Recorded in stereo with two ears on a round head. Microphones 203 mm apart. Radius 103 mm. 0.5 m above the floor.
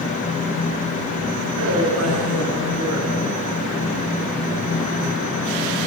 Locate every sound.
1.6 s a woman speaking: 70° right (ahead or behind), 7.5 m